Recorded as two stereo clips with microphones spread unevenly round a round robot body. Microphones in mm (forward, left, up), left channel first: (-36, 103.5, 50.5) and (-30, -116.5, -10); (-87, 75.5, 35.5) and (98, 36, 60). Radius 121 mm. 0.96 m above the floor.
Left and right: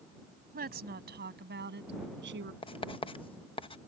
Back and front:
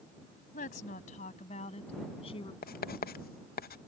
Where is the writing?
165° left.